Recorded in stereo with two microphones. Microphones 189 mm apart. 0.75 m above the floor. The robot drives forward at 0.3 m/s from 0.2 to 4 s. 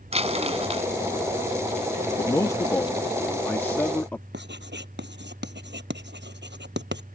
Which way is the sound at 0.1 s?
35° right (ahead or behind).